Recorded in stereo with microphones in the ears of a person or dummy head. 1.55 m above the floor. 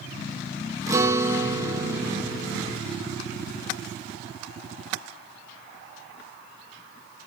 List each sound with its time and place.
0.9 s a guitar: 20° right (ahead or behind), 0.8 m